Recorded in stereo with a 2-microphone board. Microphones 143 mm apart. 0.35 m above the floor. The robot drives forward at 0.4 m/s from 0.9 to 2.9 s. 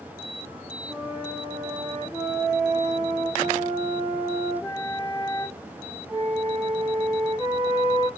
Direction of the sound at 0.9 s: 10° right (ahead or behind).